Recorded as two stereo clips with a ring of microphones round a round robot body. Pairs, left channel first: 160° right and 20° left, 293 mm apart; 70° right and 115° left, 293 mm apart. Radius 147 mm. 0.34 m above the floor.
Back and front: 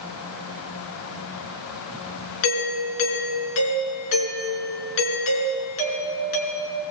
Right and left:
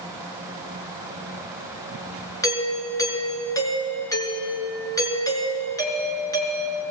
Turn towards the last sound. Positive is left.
turn(degrees=-145)